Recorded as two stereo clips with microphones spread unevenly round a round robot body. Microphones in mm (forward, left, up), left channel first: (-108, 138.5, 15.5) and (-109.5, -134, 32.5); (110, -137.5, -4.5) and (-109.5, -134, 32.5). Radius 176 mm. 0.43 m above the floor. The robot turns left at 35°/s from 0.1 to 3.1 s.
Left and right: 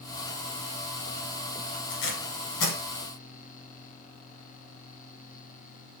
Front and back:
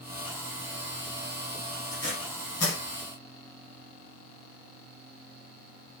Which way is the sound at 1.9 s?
85° left.